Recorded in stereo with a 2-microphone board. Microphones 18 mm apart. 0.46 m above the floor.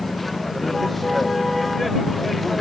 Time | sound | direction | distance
0.0 | a vehicle | centre (ahead or behind) | ?